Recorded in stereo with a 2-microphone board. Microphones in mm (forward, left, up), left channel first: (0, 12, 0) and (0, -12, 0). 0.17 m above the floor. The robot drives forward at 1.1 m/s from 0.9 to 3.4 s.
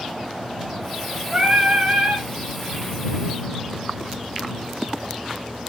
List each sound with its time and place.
1.3 s singing: 35° right (ahead or behind), 2 m; by 2.3 s 55° right (ahead or behind), 1.5 m